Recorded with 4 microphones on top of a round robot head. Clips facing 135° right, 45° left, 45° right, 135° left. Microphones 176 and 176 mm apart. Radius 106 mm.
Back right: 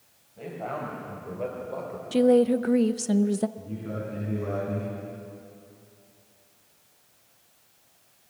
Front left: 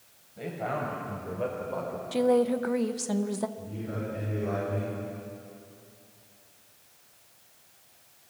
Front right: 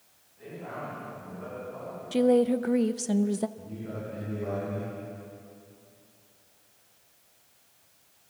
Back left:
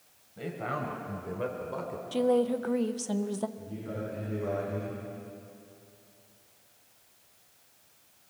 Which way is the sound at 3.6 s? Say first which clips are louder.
Back right 1 dB, even; 115° right.